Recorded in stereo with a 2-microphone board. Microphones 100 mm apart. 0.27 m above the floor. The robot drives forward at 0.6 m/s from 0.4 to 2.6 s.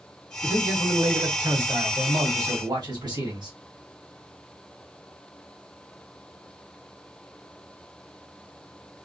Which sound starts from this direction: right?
A man speaking, at 0.4 s.